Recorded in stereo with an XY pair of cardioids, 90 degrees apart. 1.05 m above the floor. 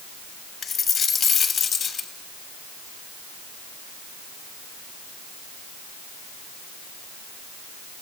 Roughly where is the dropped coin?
Ahead left.